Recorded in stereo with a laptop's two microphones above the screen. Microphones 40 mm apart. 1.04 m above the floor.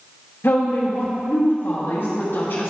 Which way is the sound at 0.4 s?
75° left (ahead or behind).